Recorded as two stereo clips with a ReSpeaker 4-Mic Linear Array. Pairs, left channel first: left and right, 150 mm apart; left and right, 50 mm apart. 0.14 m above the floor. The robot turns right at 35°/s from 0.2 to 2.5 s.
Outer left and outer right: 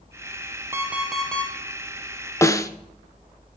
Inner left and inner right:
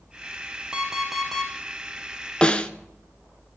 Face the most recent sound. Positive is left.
turn(degrees=20)  # may be behind; listen again after turning